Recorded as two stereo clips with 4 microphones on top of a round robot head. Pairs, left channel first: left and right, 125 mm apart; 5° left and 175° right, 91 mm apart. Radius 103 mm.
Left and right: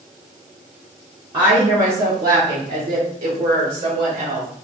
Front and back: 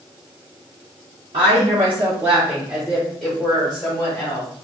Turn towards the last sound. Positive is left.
turn(degrees=-70)